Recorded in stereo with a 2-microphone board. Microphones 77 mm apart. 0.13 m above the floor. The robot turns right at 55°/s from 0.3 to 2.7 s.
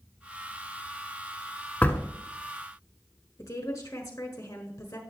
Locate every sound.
1.8 s a door slam: 20° left (ahead or behind), 1.2 m; by 2.1 s 25° left (ahead or behind), 1.2 m
3.4 s a woman speaking: 40° left (ahead or behind), 1.3 m